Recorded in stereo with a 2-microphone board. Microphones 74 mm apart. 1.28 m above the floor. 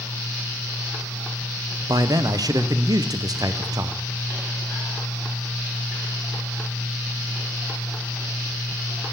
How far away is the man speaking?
About 0.6 m.